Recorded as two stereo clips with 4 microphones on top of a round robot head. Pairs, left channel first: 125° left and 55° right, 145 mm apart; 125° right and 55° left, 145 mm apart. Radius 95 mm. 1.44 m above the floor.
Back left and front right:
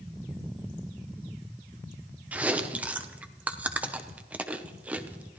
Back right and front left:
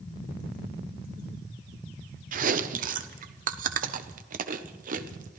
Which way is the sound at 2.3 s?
25° left.